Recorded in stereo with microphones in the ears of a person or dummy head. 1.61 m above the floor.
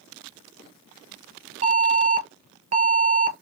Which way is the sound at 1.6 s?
40° right (ahead or behind).